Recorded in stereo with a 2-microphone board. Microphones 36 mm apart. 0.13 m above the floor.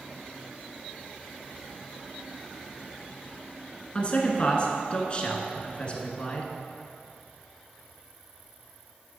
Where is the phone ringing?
No phone ringing in this recording.